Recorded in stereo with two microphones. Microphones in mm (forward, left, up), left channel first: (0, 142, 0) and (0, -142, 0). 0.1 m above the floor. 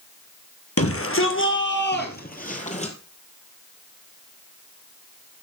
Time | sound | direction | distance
0.8 | a shout | 55° left (ahead or behind) | 3 m